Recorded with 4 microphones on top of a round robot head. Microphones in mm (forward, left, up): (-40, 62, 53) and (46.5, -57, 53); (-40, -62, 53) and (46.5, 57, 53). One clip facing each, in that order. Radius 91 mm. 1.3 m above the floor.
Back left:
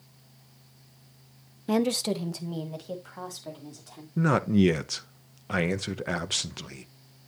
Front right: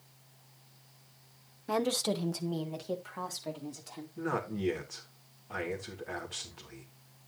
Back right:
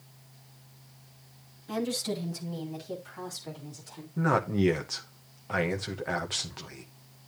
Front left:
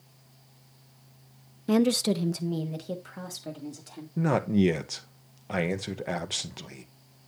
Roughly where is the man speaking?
Behind left.